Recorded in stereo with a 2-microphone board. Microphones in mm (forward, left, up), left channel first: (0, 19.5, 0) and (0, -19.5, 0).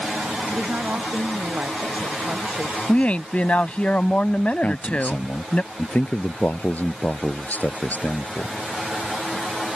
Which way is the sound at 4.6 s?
45° left (ahead or behind).